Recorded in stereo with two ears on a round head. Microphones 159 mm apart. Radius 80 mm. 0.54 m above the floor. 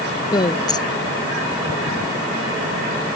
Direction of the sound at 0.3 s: 25° left (ahead or behind).